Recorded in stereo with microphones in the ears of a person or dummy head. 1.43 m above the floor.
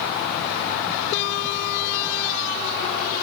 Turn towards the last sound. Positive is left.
No sound to turn to.